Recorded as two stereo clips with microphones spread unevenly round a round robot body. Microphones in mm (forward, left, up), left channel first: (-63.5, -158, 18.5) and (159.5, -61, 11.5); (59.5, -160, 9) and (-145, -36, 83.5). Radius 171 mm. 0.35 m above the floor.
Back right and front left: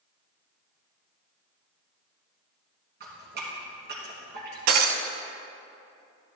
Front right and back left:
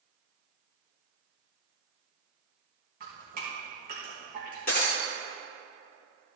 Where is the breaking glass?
40° left, 0.9 m.